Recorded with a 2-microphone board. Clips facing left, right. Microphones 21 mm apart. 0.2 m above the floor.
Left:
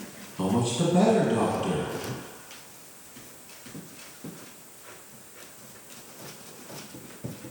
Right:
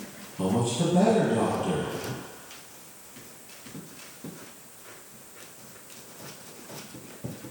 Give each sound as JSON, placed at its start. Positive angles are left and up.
{"t": 0.4, "sound": "a man speaking", "side_deg": 35, "distance_m": 1.5}